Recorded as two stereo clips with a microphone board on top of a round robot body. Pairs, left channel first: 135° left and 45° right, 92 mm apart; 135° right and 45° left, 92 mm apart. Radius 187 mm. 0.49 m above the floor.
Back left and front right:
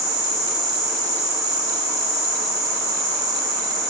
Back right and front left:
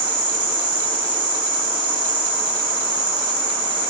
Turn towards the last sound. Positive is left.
turn(degrees=10)